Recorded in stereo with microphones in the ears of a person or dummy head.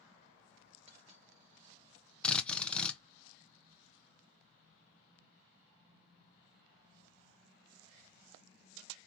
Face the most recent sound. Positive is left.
turn(degrees=5)  # may be behind; listen again after turning